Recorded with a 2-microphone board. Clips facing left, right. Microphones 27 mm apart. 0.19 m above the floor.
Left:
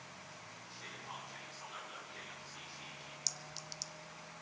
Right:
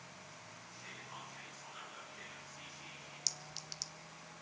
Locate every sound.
0.7 s whispering: 65° left (ahead or behind), 9 m
3.3 s a clink: 10° right (ahead or behind), 1.3 m